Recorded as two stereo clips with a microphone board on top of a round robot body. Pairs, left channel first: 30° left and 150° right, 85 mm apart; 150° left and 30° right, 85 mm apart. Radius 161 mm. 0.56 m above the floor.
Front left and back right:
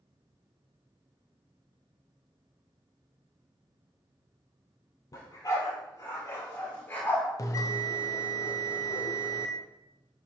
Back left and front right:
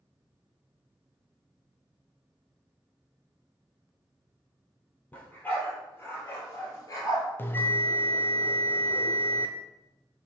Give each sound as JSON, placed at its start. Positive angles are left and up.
{"t": 5.1, "sound": "a dog barking", "azimuth_deg": 80, "distance_m": 4.0}
{"t": 7.4, "sound": "a bell", "azimuth_deg": 85, "distance_m": 0.6}